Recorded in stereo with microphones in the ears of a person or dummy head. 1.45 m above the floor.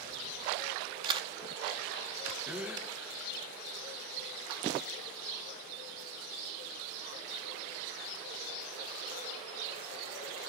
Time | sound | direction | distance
1.1 | a camera shutter | 25° right (ahead or behind) | 1.4 m
2.5 | a gasp | 5° right (ahead or behind) | 1.1 m